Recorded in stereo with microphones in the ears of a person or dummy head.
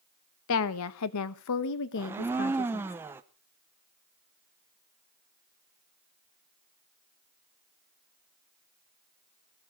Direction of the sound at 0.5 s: 65° left (ahead or behind).